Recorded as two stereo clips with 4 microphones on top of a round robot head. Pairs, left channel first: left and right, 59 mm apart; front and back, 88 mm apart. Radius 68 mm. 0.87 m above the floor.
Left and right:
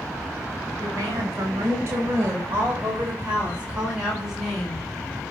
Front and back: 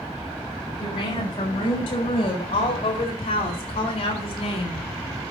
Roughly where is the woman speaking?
Ahead right.